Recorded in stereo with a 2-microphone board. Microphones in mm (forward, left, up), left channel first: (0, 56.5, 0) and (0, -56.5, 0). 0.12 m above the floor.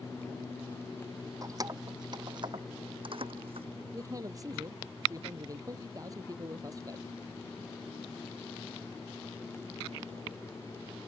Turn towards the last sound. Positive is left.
turn(degrees=-35)  # may be behind; listen again after turning